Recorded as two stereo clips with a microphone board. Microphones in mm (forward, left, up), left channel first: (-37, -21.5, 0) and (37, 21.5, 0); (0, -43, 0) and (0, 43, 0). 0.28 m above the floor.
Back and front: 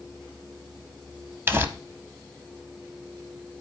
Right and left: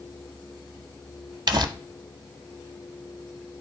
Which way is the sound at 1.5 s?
85° left.